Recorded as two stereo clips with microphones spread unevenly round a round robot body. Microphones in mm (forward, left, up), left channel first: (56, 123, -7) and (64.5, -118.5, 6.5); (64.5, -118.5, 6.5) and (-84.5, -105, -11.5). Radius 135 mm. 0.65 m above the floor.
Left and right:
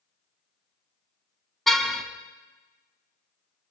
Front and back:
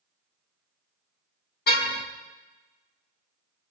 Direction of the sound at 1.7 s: 5° left.